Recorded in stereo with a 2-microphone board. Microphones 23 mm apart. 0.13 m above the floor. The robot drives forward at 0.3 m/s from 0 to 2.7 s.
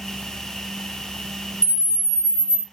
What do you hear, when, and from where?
1.6 s a camera shutter: 30° left (ahead or behind), 1.6 m